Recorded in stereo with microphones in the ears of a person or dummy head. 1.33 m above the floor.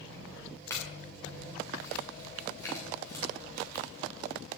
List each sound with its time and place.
0.7 s a clink: 15° left (ahead or behind), 3.5 m